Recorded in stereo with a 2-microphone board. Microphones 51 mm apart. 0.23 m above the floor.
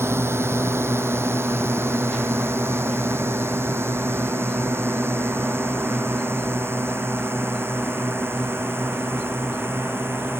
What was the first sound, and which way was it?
A drone, 55° right (ahead or behind).